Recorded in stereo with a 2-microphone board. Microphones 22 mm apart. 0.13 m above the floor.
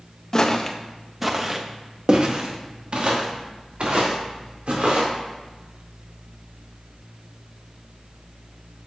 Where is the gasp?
I don't hear a gasp.